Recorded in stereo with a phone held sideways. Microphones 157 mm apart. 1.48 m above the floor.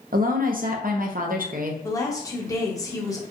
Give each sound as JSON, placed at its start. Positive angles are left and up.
{"t": 0.1, "sound": "a woman speaking", "side_deg": -65, "distance_m": 0.7}
{"t": 1.8, "sound": "a woman speaking", "side_deg": 20, "distance_m": 1.0}